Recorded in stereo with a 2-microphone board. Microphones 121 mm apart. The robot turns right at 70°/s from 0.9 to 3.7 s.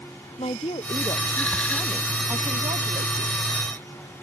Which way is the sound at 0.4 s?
120° left.